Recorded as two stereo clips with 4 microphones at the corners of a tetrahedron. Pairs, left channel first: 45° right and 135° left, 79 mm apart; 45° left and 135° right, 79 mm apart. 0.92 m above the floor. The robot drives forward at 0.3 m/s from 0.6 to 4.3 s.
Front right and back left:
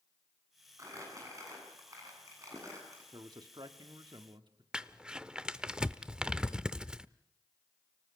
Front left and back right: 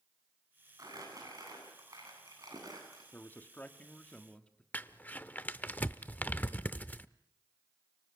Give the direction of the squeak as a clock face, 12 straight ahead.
I don't hear a squeak.